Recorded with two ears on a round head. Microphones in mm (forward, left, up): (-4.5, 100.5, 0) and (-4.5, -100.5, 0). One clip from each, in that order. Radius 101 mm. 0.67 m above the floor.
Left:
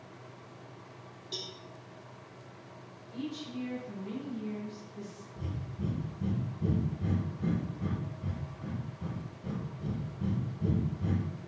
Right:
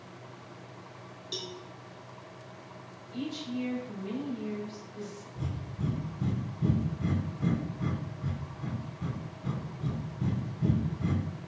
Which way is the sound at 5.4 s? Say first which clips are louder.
Even; 45° right (ahead or behind).